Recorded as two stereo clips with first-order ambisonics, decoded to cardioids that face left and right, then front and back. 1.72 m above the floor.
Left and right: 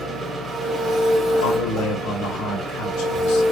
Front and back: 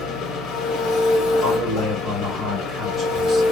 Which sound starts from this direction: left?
A man speaking, at 1.4 s.